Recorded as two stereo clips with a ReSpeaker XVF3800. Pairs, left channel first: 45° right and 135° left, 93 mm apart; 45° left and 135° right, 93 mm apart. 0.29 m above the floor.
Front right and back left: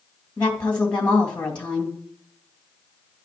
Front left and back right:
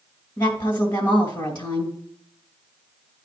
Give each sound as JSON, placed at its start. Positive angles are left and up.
{"t": 0.4, "sound": "a woman speaking", "azimuth_deg": 30, "distance_m": 2.0}